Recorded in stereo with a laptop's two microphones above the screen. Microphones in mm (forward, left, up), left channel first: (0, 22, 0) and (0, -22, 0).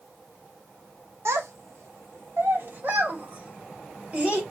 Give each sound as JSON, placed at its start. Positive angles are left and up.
{"t": 1.2, "sound": "a child speaking", "side_deg": -85, "distance_m": 1.1}